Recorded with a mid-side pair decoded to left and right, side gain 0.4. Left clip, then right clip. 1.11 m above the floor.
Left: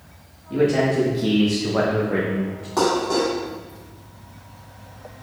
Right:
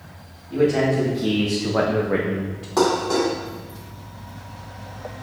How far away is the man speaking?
About 1.5 m.